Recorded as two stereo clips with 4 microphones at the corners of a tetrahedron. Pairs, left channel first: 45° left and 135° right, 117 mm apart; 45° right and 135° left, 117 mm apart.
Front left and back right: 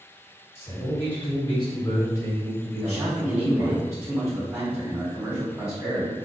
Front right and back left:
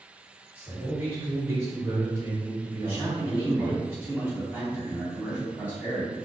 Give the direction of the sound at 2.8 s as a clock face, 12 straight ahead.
6 o'clock.